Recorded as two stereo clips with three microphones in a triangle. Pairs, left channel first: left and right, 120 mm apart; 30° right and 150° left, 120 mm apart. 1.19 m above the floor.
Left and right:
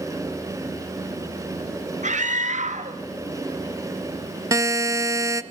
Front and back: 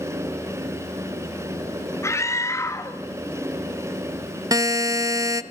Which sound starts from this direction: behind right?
A buzzer, at 4.5 s.